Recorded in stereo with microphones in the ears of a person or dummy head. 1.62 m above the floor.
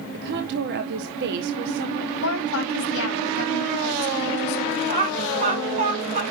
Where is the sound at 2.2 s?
75° left (ahead or behind), 3.5 m.